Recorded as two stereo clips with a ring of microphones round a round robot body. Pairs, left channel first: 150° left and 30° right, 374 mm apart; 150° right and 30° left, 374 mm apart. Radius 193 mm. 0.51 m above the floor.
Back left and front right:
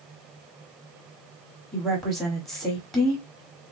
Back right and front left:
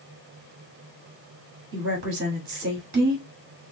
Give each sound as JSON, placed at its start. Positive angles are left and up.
{"t": 1.7, "sound": "a woman speaking", "azimuth_deg": 75, "distance_m": 1.4}